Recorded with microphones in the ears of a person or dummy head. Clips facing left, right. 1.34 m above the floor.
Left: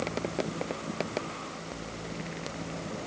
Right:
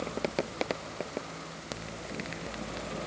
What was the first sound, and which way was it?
Only background noise.